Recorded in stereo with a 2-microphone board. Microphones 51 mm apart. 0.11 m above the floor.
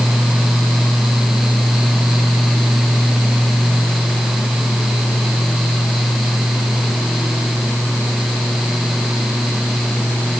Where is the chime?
I don't hear a chime.